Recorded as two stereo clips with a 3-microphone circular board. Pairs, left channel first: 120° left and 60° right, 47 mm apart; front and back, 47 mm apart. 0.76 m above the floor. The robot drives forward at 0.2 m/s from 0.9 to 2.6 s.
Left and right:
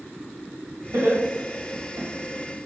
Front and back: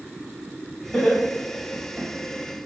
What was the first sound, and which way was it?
Laughter, 60° right.